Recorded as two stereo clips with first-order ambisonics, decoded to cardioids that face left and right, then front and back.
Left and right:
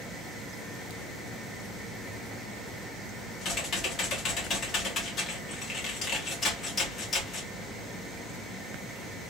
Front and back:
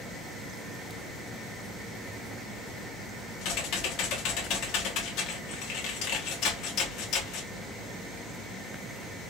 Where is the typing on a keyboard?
30° left, 1.4 m.